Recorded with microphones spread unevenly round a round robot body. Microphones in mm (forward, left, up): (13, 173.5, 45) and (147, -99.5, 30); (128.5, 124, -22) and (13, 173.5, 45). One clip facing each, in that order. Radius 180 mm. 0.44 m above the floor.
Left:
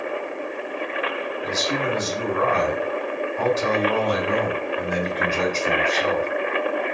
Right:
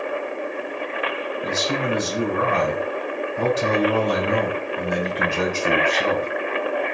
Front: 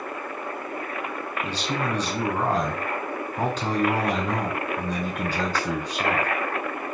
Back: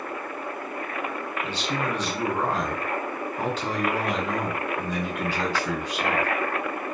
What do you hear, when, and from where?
1.4 s a man speaking: 15° right, 2 m